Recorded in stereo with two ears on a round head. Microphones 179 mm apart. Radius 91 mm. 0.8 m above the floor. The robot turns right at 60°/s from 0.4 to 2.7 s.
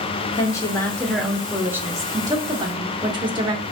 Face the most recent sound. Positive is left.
turn(degrees=-25)  # may be behind; listen again after turning